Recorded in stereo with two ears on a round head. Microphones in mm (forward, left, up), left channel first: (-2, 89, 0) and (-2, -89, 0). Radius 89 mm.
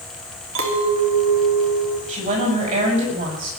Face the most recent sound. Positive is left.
turn(degrees=-40)  # may be behind; listen again after turning